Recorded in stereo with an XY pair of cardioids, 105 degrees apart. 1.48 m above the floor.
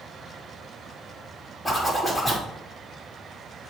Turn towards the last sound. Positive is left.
turn(degrees=15)